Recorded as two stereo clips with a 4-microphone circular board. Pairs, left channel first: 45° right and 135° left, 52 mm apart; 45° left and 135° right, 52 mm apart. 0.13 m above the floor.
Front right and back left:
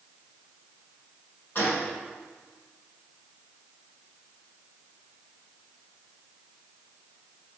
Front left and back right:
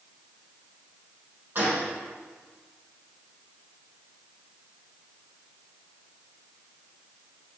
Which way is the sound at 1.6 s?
85° right.